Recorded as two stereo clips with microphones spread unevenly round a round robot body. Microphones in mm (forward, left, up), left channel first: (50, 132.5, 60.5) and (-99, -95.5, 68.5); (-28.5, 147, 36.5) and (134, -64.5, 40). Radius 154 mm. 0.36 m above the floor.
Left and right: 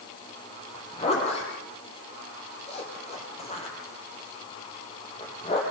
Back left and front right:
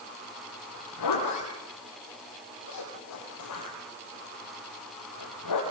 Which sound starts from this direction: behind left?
A zipper, at 0.7 s.